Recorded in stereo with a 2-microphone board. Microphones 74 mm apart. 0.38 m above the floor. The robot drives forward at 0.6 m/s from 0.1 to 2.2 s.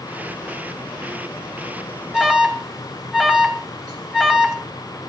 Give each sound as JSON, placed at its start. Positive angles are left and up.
{"t": 2.1, "sound": "an alarm", "side_deg": -5, "distance_m": 4.0}